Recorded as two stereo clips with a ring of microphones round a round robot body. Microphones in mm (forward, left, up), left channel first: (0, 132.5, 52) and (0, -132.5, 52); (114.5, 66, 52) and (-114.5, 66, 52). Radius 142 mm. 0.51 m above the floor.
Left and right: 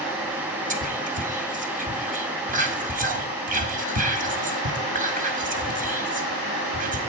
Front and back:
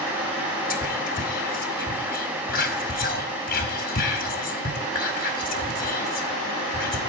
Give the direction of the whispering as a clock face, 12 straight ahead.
1 o'clock.